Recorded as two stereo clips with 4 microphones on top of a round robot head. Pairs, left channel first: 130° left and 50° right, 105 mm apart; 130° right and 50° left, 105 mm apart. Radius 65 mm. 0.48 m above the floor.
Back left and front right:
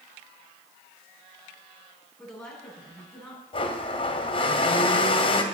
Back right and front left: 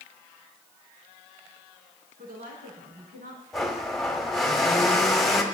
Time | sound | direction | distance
2.2 | a woman speaking | 45° left | 6.5 m
3.5 | a blender | 140° left | 1.6 m